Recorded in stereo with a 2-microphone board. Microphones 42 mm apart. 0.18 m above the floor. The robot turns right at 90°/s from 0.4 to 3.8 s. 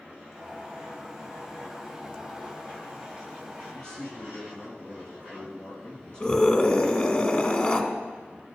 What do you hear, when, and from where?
3.7 s a man speaking: 25° left (ahead or behind), 3.5 m; by 7.1 s 20° left (ahead or behind), 3.5 m
6.2 s a scream: 30° left (ahead or behind), 1.3 m